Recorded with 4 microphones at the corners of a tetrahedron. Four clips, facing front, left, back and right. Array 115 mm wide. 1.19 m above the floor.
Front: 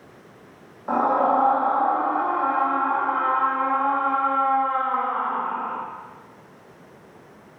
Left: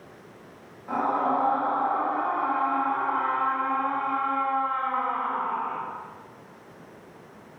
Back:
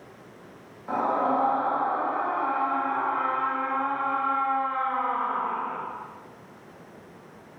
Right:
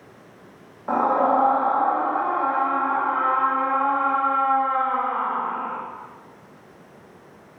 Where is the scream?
50° right, 2 m.